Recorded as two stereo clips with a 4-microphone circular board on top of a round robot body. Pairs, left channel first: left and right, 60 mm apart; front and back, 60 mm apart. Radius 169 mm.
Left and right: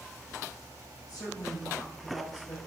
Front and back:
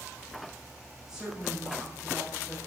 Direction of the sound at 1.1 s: 100° left.